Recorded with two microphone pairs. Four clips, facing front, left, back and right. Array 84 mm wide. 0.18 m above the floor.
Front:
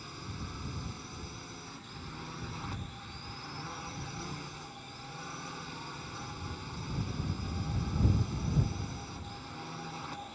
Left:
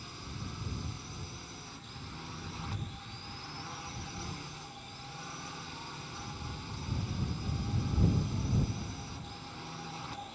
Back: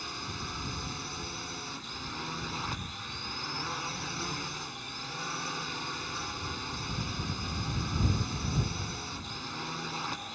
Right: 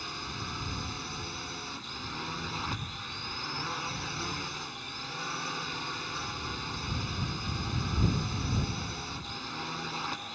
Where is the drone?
130° right.